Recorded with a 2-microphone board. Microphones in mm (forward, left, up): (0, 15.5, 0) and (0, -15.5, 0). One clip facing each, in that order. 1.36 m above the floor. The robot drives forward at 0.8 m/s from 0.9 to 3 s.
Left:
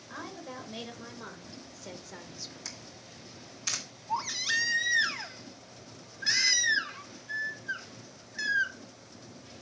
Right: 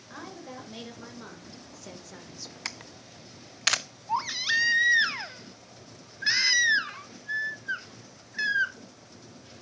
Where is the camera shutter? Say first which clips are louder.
Right 6 dB; 55° right (ahead or behind), 0.5 m; by 3.8 s 70° right (ahead or behind), 0.5 m.